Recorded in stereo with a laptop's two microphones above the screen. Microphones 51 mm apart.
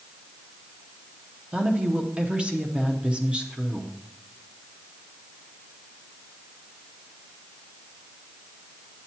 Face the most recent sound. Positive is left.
turn(degrees=-20)  # may be behind; listen again after turning